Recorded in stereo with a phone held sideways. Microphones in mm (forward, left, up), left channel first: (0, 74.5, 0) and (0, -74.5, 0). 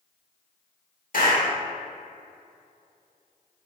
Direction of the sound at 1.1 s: 70° left (ahead or behind).